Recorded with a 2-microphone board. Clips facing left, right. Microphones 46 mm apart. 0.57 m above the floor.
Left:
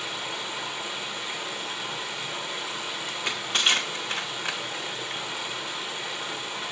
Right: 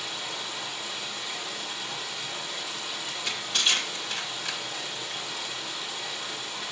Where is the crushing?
40° left (ahead or behind), 1.6 m.